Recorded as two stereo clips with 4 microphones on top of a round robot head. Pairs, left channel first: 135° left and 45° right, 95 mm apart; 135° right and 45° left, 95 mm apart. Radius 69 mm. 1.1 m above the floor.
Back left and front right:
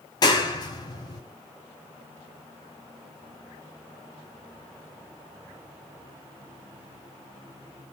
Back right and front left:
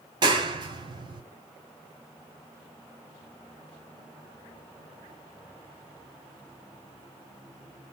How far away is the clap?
About 3.5 m.